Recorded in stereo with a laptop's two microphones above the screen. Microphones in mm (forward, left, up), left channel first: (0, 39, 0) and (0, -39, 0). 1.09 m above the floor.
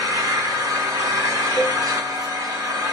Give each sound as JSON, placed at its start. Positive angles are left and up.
{"t": 0.0, "sound": "an engine running", "side_deg": -45, "distance_m": 6.0}
{"t": 1.6, "sound": "a cowbell", "side_deg": -40, "distance_m": 6.0}